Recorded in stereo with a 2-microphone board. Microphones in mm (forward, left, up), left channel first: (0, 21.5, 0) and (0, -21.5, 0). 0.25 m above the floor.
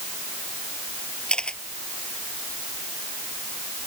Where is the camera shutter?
25° left (ahead or behind).